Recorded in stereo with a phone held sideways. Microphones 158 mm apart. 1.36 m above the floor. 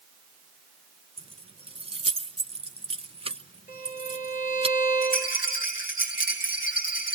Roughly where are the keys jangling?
Right.